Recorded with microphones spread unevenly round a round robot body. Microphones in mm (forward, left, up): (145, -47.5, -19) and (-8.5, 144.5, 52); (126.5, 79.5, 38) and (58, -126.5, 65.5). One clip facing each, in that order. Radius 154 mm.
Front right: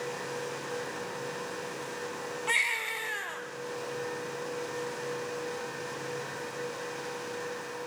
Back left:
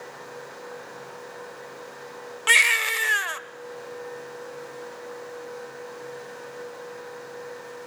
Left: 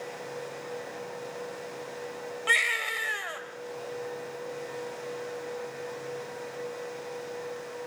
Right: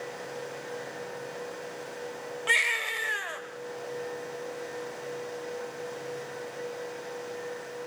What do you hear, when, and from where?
2.5 s a baby crying: 160° left, 1.2 m